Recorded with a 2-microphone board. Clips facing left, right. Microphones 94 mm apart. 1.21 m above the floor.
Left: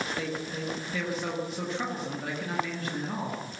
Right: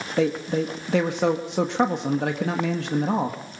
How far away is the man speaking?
About 1.4 m.